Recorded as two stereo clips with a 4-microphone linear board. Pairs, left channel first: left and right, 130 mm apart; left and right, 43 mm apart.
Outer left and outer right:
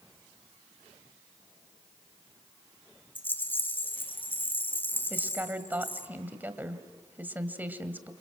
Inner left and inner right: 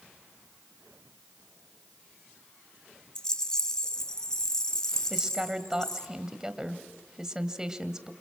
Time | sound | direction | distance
3.1 | a rattle | 15° left (ahead or behind) | 1.4 m
5.1 | a woman speaking | 15° right (ahead or behind) | 1.8 m